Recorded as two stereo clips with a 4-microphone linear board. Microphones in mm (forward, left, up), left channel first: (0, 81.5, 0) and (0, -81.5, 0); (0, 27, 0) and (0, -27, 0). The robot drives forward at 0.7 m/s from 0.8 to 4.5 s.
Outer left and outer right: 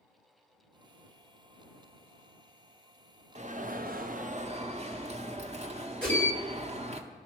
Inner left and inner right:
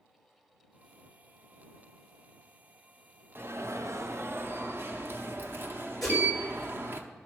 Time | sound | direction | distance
3.4 | an alarm | 45° right (ahead or behind) | 0.6 m
6.0 | a whoosh | 5° left (ahead or behind) | 4 m